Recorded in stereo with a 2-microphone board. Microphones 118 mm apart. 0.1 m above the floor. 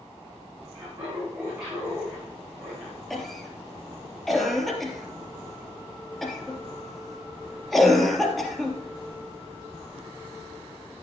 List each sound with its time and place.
0.7 s laughter: 30° right (ahead or behind), 8 m; by 3.0 s 20° right (ahead or behind), 7 m
3.1 s a cough: centre (ahead or behind), 2.5 m